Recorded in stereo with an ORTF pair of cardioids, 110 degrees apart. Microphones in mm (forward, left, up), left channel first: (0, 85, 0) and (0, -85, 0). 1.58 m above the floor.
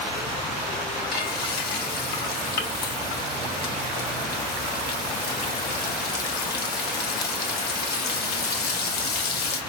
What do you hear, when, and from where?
1.1 s frying: 65° left, 1.3 m